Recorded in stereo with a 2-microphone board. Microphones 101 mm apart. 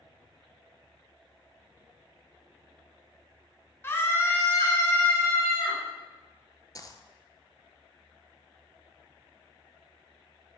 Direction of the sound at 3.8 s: 25° left (ahead or behind).